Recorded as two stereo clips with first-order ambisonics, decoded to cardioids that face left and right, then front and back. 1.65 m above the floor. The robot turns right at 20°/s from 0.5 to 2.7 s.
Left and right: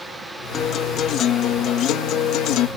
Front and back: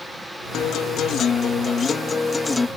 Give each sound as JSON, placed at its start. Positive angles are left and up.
{"t": 0.5, "sound": "a guitar", "azimuth_deg": 35}